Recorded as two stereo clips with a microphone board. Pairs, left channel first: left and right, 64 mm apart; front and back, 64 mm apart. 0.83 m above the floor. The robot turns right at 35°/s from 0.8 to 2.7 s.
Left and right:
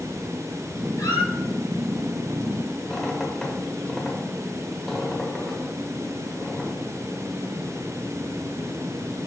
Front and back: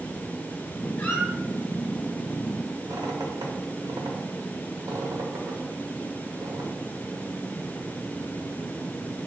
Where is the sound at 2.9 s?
175° left, 0.9 m.